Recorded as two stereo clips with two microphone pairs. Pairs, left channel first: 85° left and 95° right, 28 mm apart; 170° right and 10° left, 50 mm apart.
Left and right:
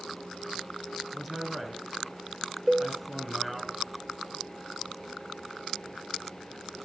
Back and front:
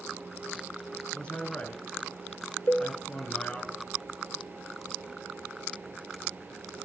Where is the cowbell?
170° left, 0.7 m.